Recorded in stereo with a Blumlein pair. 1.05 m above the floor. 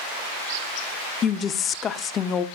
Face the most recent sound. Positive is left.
turn(degrees=25)